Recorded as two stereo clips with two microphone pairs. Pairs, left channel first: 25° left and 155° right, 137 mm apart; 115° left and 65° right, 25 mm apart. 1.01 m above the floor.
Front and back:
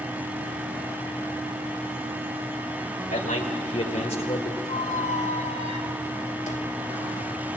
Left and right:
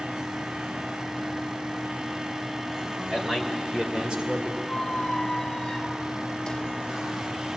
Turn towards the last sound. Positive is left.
turn(degrees=55)